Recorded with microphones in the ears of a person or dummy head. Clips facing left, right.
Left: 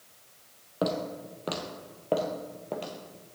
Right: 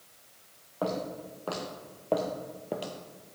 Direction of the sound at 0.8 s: 35° left (ahead or behind).